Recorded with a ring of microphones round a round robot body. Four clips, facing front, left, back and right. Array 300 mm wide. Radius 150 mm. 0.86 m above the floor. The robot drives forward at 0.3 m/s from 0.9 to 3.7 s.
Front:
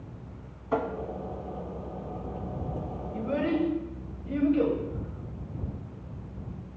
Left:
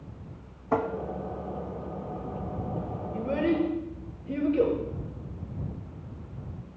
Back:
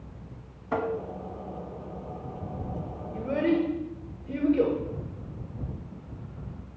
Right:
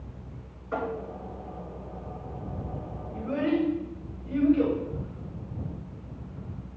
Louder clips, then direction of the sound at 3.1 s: Even, back 2 dB; 130° left.